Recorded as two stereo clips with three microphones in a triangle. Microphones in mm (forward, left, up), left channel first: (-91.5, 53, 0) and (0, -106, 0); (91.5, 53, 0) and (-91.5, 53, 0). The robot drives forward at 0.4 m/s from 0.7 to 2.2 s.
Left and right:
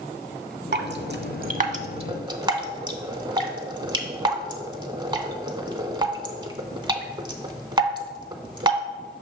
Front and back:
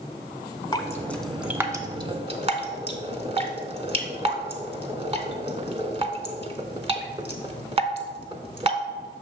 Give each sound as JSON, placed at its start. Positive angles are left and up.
{"t": 0.7, "sound": "dripping", "azimuth_deg": -65, "distance_m": 0.6}